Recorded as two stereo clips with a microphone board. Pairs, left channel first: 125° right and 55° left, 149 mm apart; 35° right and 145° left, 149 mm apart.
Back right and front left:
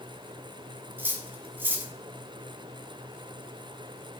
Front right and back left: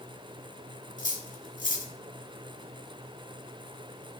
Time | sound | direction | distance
1.0 | cutlery clinking | 20° right | 1.2 m